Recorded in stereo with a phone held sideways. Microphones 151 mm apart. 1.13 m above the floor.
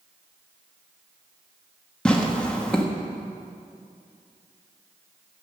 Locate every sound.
2.0 s tearing paper: 5° left (ahead or behind), 1.1 m